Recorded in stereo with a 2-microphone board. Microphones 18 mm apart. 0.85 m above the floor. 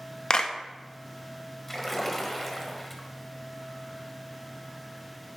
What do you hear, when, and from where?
0.3 s a clap: 50° left (ahead or behind), 0.8 m
1.7 s a splash: 15° left (ahead or behind), 1.4 m